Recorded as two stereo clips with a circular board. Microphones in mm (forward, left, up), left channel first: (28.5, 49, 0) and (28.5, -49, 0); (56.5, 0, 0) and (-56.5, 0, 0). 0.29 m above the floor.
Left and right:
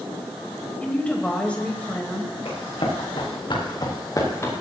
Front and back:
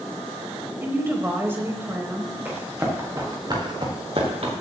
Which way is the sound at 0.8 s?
145° left.